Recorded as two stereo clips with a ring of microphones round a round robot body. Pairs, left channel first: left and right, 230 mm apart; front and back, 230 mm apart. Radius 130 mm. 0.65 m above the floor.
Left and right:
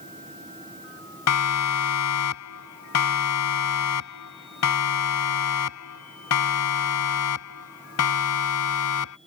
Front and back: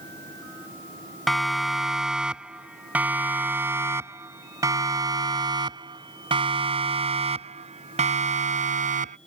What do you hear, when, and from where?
1.3 s a siren: 90° left; by 9.2 s 120° left